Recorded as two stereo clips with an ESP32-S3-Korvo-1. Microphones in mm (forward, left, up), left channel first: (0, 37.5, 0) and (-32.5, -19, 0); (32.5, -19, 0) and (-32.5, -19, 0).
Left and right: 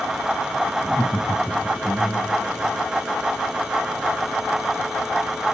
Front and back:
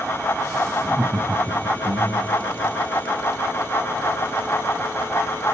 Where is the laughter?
150° left, 1.3 m; by 2.3 s 160° left, 2.5 m.